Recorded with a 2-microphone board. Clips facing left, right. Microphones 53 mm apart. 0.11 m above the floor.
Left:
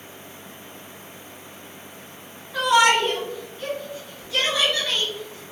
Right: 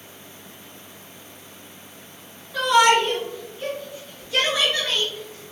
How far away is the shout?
About 1.4 m.